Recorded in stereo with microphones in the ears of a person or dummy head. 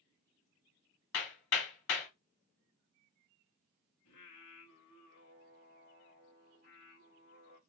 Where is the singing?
45° left (ahead or behind), 1.6 m.